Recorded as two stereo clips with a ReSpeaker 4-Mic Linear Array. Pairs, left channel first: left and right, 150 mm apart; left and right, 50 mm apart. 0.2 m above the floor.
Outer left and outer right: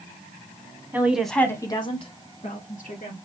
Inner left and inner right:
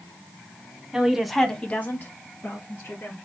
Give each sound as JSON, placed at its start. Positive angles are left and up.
{"t": 0.9, "sound": "a woman speaking", "side_deg": -15, "distance_m": 1.2}